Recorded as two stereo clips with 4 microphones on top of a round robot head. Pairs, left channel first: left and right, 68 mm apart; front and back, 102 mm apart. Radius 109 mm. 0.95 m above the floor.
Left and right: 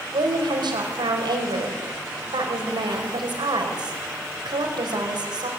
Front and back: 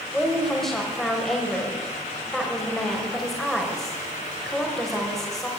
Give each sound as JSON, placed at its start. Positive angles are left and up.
{"t": 0.1, "sound": "a woman speaking", "azimuth_deg": -90, "distance_m": 5.5}